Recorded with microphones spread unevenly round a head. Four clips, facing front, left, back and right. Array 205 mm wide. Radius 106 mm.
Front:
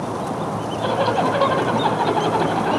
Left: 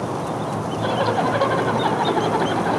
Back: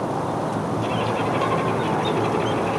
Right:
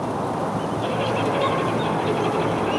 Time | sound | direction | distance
0.8 | a zipper | 35° left | 2 m